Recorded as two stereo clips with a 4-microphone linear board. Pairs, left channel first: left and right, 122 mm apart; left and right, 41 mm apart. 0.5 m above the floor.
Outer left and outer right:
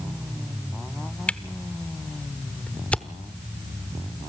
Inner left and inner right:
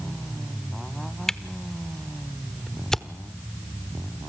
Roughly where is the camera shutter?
Centre.